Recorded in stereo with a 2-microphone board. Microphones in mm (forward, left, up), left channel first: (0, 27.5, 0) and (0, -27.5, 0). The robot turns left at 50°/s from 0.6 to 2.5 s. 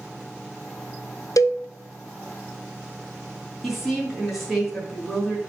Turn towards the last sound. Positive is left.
turn(degrees=0)  # may be behind; listen again after turning